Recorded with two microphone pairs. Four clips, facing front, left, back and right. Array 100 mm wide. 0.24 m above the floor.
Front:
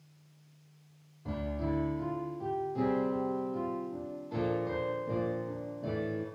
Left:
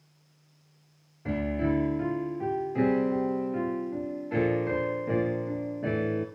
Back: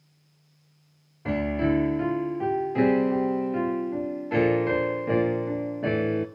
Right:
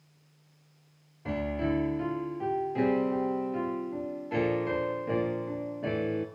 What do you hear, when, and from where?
1.2 s a piano: straight behind, 0.7 m